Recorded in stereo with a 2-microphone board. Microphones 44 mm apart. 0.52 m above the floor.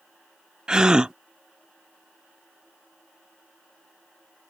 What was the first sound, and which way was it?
A gasp, 15° right (ahead or behind).